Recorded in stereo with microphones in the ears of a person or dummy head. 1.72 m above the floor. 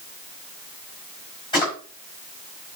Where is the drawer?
25° left (ahead or behind), 6.5 m.